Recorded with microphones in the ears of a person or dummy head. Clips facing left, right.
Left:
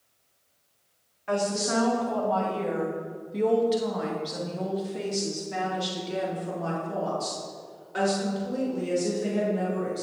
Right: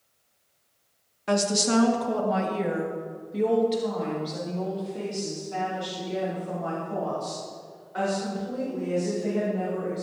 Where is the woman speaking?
60° right (ahead or behind), 1.4 m; by 10.0 s 45° left (ahead or behind), 5 m.